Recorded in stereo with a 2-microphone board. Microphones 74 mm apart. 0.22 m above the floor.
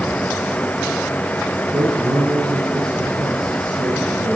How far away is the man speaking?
About 3.5 m.